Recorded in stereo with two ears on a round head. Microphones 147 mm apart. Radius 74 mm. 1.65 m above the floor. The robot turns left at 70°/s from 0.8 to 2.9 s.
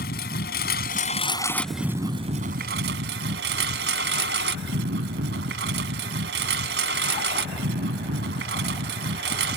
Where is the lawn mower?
65° left; by 9.6 s 85° right.